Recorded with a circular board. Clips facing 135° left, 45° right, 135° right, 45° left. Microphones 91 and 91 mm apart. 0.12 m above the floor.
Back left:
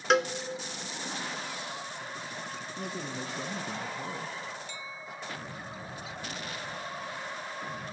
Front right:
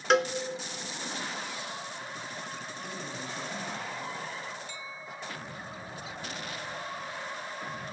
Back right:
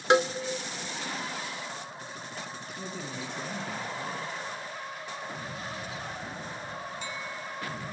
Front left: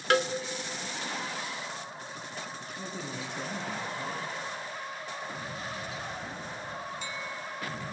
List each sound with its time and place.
0.1 s a cowbell: 135° right, 0.7 m
2.8 s a man speaking: 130° left, 1.8 m